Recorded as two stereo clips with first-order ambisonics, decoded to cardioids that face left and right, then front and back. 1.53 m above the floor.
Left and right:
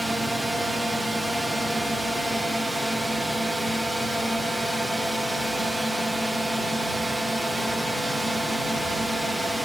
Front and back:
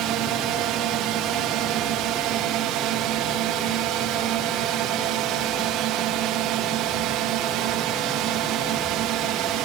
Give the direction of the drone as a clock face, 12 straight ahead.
6 o'clock.